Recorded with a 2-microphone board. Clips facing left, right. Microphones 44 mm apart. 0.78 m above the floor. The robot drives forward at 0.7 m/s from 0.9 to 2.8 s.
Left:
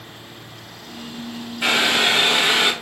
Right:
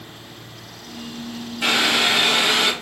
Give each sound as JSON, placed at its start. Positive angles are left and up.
{"t": 1.6, "sound": "boiling", "side_deg": 15, "distance_m": 1.4}